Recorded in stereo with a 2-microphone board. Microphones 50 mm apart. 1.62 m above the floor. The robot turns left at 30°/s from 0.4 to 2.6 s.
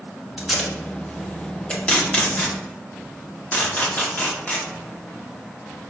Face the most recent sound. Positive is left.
turn(degrees=35)  # may be behind; listen again after turning